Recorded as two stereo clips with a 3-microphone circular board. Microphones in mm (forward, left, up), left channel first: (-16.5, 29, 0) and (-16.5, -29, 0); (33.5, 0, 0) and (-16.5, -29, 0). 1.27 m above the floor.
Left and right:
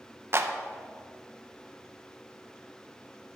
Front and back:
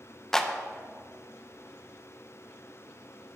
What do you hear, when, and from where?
0.3 s a clap: 50° right, 0.6 m